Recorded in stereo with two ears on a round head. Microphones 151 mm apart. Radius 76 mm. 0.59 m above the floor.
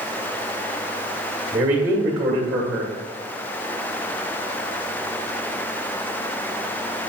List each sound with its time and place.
1.5 s a man speaking: 30° right (ahead or behind), 1.1 m